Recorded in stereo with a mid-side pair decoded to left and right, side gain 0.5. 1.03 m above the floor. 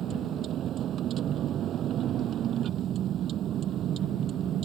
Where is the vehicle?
60° right.